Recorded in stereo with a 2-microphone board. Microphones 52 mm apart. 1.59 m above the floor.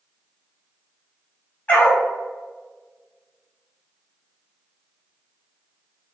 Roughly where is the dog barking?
Left.